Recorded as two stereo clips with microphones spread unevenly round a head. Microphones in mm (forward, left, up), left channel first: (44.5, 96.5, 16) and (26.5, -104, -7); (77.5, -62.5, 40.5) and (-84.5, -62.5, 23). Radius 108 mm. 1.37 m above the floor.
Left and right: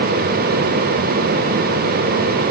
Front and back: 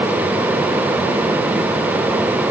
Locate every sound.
Only background noise.